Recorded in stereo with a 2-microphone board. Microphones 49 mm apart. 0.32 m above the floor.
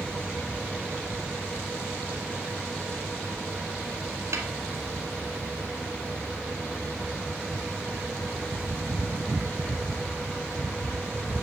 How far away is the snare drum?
About 1.4 m.